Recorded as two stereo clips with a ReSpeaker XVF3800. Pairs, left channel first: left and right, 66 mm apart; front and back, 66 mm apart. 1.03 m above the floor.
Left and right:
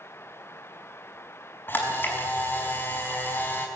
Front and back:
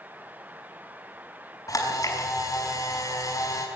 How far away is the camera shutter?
About 5 m.